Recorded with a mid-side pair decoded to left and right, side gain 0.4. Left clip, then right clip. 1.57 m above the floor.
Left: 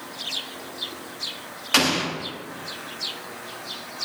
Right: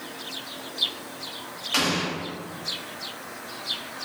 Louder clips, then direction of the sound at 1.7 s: Left 4 dB; 55° left.